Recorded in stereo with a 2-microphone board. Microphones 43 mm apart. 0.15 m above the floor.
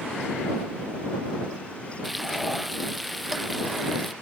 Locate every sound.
2.0 s frying: centre (ahead or behind)